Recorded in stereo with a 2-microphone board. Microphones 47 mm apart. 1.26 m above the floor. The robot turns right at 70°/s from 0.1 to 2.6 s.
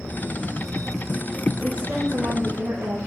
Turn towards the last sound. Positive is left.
turn(degrees=-90)